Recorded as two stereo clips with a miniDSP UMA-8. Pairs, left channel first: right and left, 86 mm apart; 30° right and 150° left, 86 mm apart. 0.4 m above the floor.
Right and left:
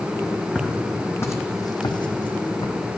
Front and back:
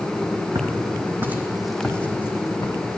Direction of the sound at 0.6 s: 170° right.